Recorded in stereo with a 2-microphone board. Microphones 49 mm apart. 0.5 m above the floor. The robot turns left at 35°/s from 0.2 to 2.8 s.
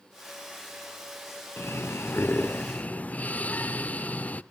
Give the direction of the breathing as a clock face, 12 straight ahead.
9 o'clock.